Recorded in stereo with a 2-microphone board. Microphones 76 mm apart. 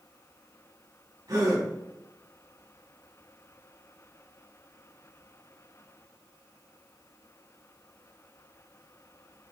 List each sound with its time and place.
1.3 s a gasp: 50° right (ahead or behind), 4 m